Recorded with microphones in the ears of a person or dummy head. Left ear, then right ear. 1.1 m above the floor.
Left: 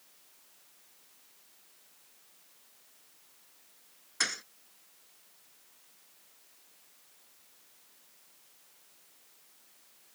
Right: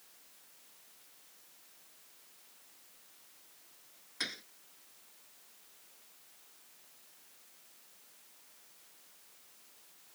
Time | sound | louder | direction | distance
4.2 | a thud | left 7 dB | 50° left (ahead or behind) | ?